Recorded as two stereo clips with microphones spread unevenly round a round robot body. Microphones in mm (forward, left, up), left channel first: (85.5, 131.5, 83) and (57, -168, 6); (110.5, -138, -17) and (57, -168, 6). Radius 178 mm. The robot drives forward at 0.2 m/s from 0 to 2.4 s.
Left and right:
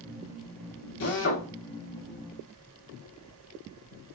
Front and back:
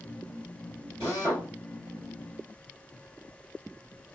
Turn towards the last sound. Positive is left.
turn(degrees=145)